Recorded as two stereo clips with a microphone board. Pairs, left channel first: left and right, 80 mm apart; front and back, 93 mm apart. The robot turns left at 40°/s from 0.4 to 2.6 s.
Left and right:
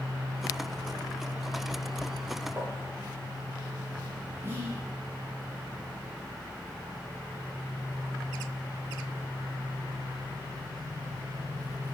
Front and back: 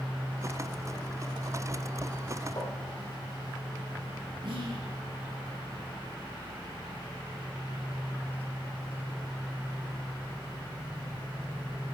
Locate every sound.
2.6 s tapping: 30° right, 6.5 m
4.4 s whispering: 150° right, 5 m